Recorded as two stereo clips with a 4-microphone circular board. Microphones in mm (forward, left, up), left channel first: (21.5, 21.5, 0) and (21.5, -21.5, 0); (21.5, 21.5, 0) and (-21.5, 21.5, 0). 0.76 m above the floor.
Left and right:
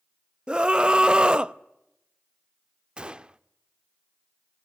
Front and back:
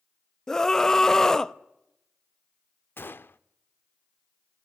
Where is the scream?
55° right, 0.5 m.